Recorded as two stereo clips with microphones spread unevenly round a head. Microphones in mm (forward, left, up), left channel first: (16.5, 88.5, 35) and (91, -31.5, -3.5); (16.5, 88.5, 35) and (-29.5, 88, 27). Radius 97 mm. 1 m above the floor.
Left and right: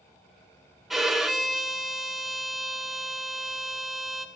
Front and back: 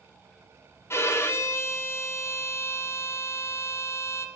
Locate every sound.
0.9 s a violin: 20° left, 0.7 m